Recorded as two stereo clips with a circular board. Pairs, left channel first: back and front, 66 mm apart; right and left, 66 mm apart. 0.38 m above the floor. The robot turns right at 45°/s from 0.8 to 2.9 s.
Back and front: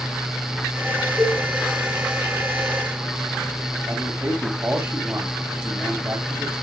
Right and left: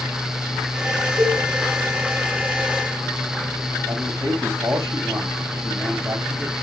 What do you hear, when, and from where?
1.2 s a cowbell: 60° left, 4.5 m; by 1.4 s 70° left, 4.5 m
3.9 s a man speaking: 60° left, 3 m